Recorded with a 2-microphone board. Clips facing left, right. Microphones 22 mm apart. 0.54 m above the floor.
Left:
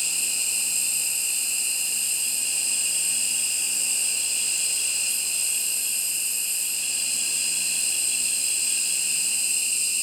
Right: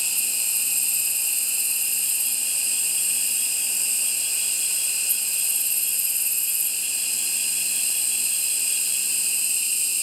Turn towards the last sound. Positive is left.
turn(degrees=20)  # may be behind; listen again after turning